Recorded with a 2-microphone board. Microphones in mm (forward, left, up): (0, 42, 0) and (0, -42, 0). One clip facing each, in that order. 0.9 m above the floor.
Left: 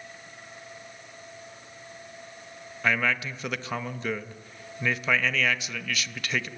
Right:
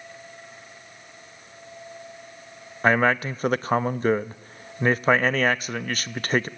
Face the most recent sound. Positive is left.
turn(degrees=-40)  # may be behind; listen again after turning